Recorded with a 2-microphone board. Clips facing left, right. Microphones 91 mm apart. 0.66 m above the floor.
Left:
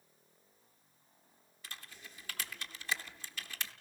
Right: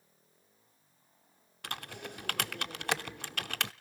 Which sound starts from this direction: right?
Typing on a keyboard, at 1.6 s.